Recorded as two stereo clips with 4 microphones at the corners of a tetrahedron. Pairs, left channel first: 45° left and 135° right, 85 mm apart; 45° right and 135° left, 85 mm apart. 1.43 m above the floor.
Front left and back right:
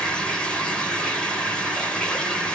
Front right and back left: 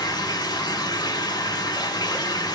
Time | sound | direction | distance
0.0 | running water | 30° right | 1.9 m